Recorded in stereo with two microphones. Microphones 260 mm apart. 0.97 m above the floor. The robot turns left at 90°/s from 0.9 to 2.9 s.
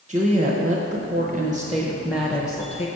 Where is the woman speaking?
60° right, 0.9 m; by 2.9 s 120° left, 0.9 m.